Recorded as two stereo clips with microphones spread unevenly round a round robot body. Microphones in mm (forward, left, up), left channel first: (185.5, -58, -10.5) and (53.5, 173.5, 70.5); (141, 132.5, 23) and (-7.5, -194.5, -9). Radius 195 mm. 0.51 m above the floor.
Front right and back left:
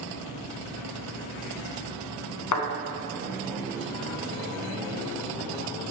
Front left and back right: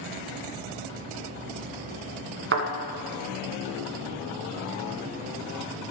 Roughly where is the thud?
Ahead right.